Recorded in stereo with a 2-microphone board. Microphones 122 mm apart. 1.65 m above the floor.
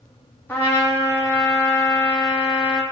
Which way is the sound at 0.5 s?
15° left (ahead or behind).